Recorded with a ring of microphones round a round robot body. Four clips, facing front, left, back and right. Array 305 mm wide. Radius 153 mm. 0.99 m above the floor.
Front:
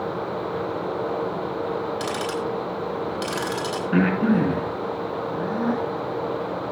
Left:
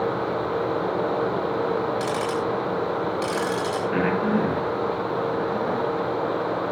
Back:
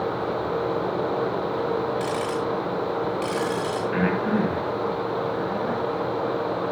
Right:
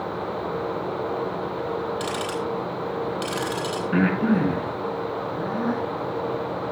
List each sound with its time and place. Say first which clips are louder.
2.0 s ticking: left 3 dB, back 1 dB; 25° right, 4.5 m
3.9 s breathing: right 3 dB, front 5 dB; 30° right, 6.5 m